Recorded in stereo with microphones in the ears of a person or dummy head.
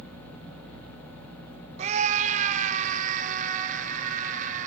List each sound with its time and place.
1.8 s a scream: 40° right (ahead or behind), 1.0 m; by 4.7 s 50° right (ahead or behind), 3.5 m